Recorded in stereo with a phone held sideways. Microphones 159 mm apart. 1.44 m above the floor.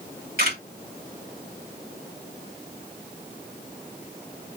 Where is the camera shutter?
65° right (ahead or behind), 3 m.